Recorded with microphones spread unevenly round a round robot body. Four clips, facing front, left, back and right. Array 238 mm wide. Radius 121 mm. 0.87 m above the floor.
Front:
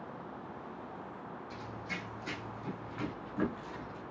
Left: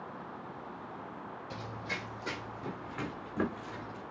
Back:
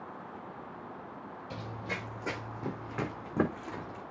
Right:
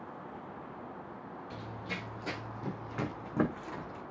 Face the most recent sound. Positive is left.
turn(degrees=-160)